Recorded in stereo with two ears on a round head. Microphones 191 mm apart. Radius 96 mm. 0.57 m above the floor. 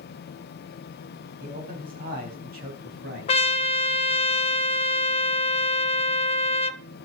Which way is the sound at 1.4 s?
40° right (ahead or behind).